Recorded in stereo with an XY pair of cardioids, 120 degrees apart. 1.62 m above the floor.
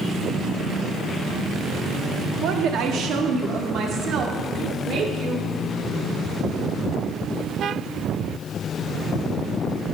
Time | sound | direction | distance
2.4 | a woman speaking | 70° right | 1.1 m